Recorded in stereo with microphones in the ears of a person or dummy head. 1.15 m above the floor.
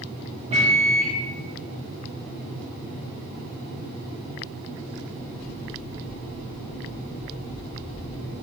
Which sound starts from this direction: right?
A microwave, at 0.5 s.